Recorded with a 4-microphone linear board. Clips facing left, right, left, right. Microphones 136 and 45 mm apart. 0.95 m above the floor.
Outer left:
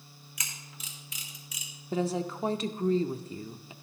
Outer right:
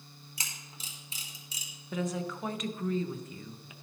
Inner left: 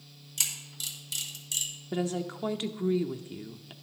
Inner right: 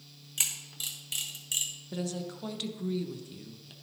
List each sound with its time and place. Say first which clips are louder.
0.4 s a camera shutter: outer left 1 dB, even; 30° right (ahead or behind), 1.7 m
1.9 s a woman speaking: outer left 4 dB, inner left 5 dB; 30° left (ahead or behind), 0.6 m